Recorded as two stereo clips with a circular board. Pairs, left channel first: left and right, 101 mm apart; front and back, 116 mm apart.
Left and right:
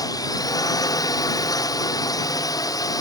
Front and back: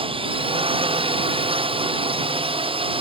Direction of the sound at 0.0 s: 140° left.